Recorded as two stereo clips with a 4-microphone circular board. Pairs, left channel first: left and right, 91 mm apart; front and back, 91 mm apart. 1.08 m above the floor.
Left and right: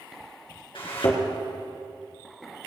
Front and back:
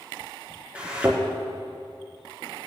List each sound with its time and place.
0.8 s a thud: 100° left, 3.5 m